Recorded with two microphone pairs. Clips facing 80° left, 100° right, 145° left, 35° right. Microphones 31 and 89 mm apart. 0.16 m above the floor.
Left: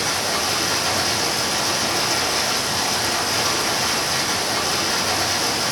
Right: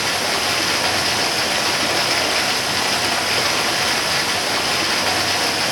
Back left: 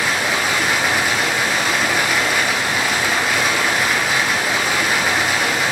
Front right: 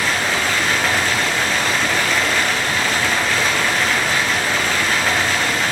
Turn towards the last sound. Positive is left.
turn(degrees=-140)